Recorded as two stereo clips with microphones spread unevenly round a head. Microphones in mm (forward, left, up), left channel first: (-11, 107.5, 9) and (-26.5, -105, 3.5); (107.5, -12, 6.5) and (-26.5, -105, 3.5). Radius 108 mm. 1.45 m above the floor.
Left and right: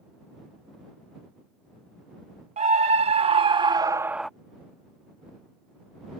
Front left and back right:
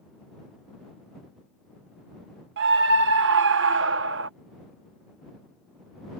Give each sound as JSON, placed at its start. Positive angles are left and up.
{"t": 2.6, "sound": "a scream", "azimuth_deg": -155}